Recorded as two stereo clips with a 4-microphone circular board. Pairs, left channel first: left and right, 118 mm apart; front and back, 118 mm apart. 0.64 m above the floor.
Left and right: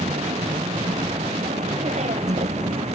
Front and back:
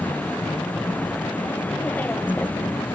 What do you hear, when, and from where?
0.0 s a vehicle: 75° right